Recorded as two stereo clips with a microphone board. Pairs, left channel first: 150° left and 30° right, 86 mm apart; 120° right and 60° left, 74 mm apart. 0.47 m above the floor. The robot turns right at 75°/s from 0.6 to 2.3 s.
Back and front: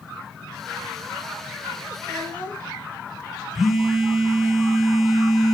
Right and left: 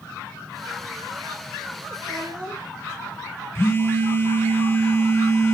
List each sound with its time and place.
2.0 s a child speaking: 60° left, 5.5 m; by 2.7 s 80° left, 5.5 m
3.5 s a phone buzzing: 115° right, 1.5 m